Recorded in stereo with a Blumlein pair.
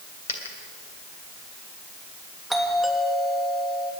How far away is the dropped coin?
About 3 m.